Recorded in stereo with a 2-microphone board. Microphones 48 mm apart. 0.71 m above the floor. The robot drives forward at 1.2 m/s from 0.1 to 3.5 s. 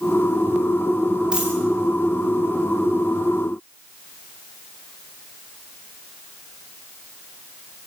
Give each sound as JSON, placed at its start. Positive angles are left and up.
{"t": 1.3, "sound": "a dropped coin", "side_deg": -15, "distance_m": 8.0}